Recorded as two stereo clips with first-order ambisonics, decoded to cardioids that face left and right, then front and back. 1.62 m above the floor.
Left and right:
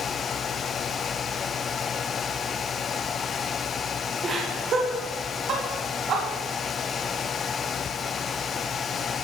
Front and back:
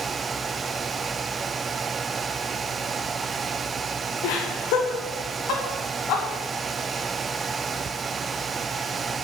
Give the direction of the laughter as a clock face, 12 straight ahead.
1 o'clock.